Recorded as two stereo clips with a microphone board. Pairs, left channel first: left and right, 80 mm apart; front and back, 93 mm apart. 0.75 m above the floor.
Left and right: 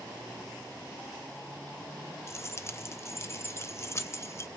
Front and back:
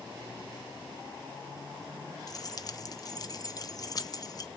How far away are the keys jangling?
About 0.5 m.